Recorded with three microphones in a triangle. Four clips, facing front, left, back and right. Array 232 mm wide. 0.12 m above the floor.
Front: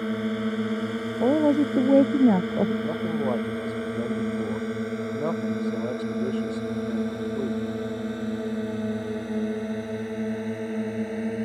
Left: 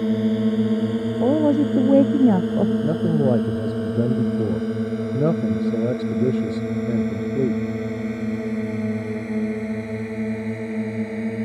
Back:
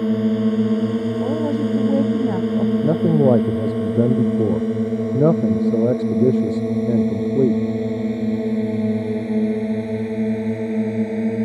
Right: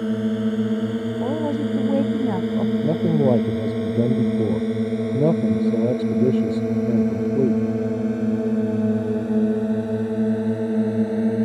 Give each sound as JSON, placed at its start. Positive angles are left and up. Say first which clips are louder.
{"t": 0.0, "sound": "a drone", "louder": "left 2 dB, back 9 dB", "azimuth_deg": 170}
{"t": 1.2, "sound": "a woman speaking", "louder": "left 8 dB, front 5 dB", "azimuth_deg": 60}
{"t": 2.8, "sound": "a man speaking", "louder": "right 1 dB, back 11 dB", "azimuth_deg": -165}